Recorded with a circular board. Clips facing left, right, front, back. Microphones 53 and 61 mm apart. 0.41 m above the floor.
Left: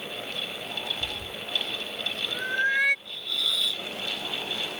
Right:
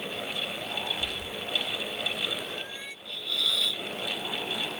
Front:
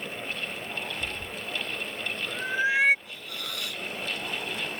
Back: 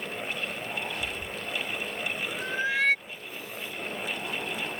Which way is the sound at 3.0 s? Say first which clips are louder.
Even, front 1 dB; straight ahead.